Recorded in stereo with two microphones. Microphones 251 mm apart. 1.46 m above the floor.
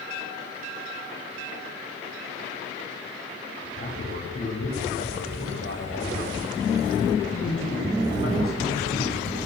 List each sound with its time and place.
3.8 s a man speaking: 60° left (ahead or behind), 9.5 m